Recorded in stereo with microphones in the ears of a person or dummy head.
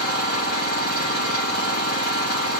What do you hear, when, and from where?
0.0 s an engine running: 60° left (ahead or behind), 1.1 m